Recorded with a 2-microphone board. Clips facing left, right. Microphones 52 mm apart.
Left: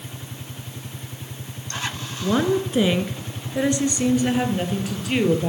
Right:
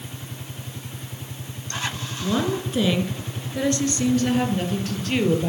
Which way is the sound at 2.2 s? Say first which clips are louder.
Left 4 dB; 20° left (ahead or behind).